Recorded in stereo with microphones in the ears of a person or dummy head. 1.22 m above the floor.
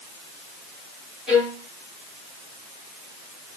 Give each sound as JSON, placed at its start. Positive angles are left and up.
{"t": 1.3, "sound": "a violin", "side_deg": -5, "distance_m": 4.0}